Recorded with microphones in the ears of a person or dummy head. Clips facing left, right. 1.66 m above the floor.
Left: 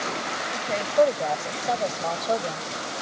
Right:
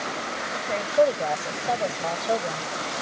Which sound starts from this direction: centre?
A woman speaking, at 0.5 s.